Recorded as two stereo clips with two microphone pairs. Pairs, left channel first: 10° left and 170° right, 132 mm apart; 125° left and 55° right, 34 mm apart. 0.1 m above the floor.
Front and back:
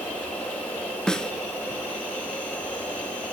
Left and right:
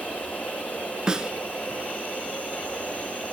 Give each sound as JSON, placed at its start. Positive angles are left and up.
{"t": 0.0, "sound": "an insect", "azimuth_deg": 90, "distance_m": 7.0}
{"t": 1.1, "sound": "a snare drum", "azimuth_deg": -65, "distance_m": 0.5}